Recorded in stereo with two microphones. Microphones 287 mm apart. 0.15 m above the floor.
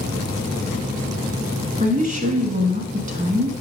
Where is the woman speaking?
30° right (ahead or behind), 1.2 m.